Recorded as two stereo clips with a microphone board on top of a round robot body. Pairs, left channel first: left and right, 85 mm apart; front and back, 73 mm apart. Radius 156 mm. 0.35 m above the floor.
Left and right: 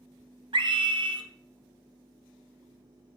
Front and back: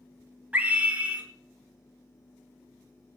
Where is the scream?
110° right, 3 m.